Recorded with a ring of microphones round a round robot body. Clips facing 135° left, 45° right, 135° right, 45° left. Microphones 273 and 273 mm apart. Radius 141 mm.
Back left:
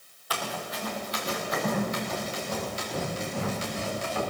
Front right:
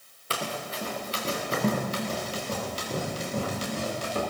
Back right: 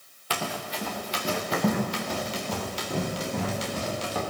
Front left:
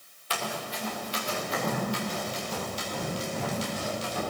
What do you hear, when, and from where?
0.3 s running footsteps: 110° right, 4 m; by 4.2 s 100° right, 8 m